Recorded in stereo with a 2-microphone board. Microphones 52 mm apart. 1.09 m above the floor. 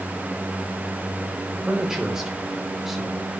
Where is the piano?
I don't hear a piano.